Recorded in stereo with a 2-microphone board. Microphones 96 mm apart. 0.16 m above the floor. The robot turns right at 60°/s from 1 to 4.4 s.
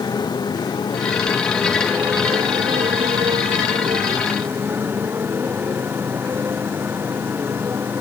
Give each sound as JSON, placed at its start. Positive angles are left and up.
{"t": 0.0, "sound": "a motorcycle", "azimuth_deg": 135}